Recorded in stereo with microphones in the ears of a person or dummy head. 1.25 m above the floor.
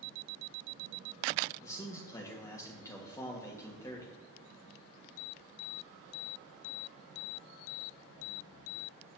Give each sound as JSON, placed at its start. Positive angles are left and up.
{"t": 1.6, "sound": "a man speaking", "side_deg": 20, "distance_m": 1.9}